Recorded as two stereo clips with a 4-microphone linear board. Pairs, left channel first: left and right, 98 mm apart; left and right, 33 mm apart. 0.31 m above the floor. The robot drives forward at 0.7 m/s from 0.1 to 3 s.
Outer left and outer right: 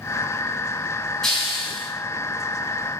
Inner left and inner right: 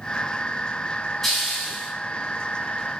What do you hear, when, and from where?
1.2 s a hiss: 5° left (ahead or behind), 3 m